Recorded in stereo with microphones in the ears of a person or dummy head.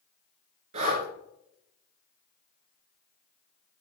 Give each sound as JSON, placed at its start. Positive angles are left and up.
{"t": 0.7, "sound": "breathing", "side_deg": -40, "distance_m": 3.0}